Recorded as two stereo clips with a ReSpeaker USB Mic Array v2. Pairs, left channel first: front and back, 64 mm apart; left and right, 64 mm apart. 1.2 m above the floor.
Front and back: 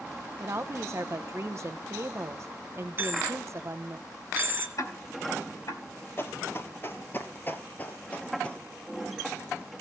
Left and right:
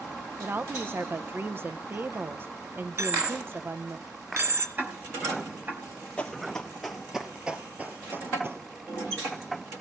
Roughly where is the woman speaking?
Behind right.